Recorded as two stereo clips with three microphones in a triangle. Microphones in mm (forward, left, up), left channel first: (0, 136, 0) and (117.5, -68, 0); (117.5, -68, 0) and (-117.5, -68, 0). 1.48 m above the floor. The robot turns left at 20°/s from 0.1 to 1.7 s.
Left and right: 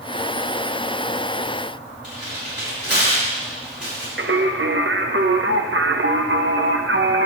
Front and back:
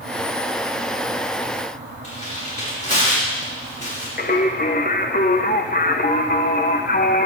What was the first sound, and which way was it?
Tearing paper, 60° right.